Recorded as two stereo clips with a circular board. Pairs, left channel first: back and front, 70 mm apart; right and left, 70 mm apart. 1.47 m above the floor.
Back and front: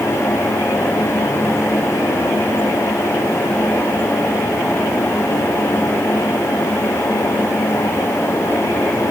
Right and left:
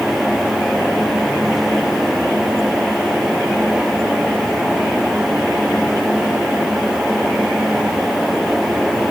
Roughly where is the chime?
I don't hear a chime.